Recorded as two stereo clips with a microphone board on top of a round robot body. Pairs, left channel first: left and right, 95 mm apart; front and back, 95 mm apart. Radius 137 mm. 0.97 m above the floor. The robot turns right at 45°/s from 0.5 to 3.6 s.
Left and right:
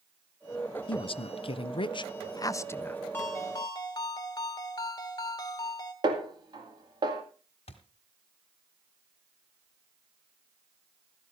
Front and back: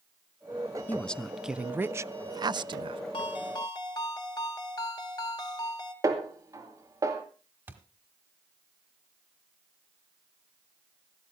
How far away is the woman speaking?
About 0.6 m.